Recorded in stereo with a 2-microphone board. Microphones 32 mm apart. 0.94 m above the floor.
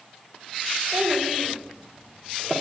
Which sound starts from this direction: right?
A child speaking, at 0.9 s.